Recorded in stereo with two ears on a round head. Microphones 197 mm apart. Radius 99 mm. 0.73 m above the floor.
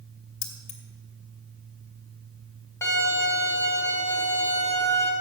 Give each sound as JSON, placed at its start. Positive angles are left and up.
{"t": 0.4, "sound": "keys jangling", "side_deg": 30, "distance_m": 1.4}
{"t": 2.8, "sound": "a violin", "side_deg": 10, "distance_m": 2.0}